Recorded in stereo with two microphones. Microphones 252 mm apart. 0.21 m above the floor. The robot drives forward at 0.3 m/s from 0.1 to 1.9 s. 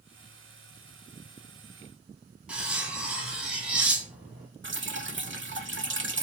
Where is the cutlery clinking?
5° right (ahead or behind), 1.0 m.